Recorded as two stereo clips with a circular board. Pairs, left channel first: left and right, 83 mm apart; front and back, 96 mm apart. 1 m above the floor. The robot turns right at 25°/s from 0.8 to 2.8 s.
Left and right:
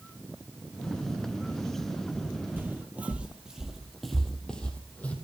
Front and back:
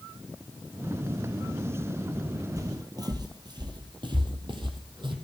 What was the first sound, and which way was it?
Footsteps, 145° right.